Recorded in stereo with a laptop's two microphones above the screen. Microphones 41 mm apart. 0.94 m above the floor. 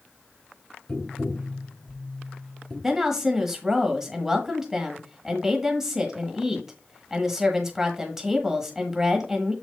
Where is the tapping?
15° left (ahead or behind), 2.5 m.